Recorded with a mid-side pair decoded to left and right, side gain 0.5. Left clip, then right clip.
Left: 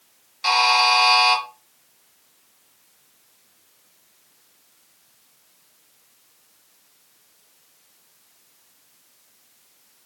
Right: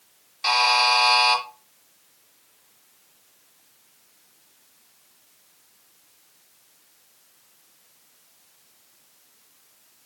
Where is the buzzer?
10° left, 3.5 m.